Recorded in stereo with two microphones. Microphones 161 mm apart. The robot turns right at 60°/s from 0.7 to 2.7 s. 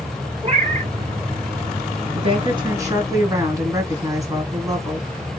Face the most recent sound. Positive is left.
turn(degrees=-25)